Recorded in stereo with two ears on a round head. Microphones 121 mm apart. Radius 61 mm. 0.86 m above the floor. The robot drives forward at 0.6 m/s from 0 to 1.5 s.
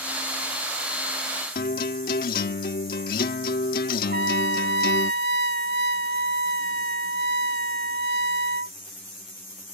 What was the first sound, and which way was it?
A guitar, 75° left (ahead or behind).